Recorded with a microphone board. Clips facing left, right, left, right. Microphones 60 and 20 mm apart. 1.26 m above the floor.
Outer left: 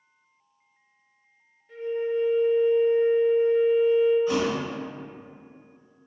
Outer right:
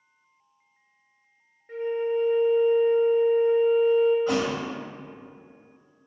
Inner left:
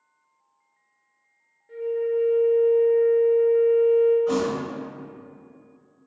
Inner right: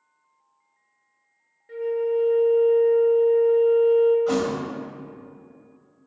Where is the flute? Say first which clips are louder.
Outer right 1 dB, inner right 1 dB; 40° right (ahead or behind), 0.6 m.